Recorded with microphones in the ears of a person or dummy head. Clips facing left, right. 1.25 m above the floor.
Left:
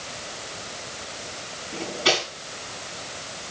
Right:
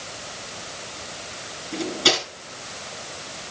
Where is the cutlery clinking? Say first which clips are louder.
Right 1 dB; 65° right (ahead or behind), 6 m.